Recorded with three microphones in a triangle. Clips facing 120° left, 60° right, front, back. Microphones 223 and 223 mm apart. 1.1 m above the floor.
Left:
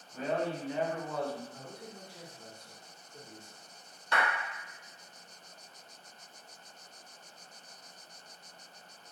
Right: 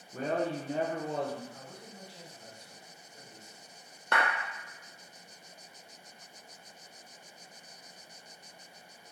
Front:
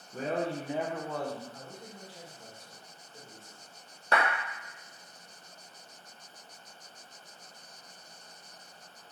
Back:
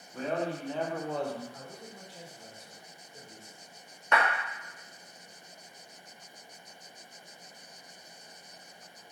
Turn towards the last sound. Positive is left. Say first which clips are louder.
# right 1 dB, even
turn(degrees=-50)